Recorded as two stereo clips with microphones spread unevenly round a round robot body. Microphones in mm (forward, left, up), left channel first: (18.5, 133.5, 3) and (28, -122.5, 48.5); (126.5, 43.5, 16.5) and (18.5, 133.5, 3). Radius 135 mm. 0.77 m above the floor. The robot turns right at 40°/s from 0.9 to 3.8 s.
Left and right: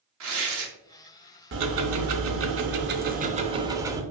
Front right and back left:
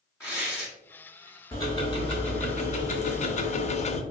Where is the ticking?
110° right, 0.6 m; by 4.0 s 20° right, 0.6 m.